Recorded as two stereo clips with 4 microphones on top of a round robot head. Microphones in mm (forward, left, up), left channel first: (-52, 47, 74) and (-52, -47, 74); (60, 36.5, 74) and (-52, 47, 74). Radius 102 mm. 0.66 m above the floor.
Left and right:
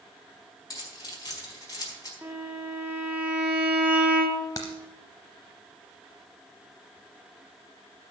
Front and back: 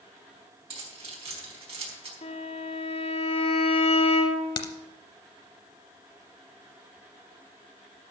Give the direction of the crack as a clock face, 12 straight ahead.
11 o'clock.